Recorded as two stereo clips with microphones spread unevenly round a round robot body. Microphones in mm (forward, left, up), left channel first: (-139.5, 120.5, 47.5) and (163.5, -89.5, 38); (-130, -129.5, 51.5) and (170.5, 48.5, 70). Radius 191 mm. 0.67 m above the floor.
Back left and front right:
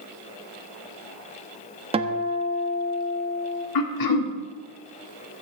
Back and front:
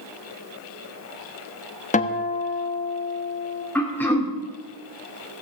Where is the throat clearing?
130° left, 1.9 m.